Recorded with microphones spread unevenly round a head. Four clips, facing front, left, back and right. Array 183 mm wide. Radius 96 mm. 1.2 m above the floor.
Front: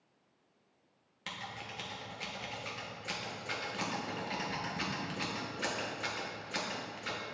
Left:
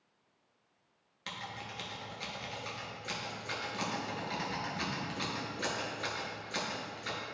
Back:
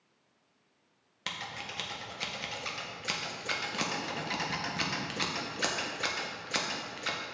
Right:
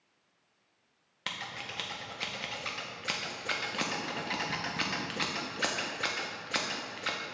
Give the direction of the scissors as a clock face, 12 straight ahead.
5 o'clock.